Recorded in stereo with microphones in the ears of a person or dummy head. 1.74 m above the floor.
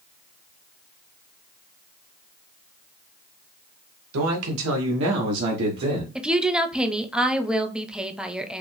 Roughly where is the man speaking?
Right.